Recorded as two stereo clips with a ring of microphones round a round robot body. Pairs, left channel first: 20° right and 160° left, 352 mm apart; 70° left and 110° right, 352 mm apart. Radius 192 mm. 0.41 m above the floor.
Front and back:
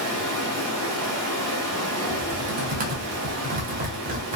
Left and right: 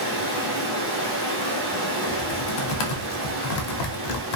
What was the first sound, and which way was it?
Running water, 160° right.